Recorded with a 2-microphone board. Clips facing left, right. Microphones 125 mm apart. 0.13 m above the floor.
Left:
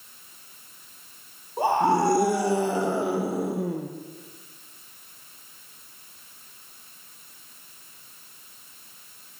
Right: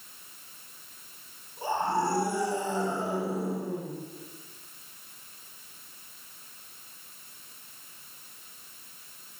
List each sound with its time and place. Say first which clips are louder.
1.6 s a scream: left 7 dB; 65° left (ahead or behind), 4 m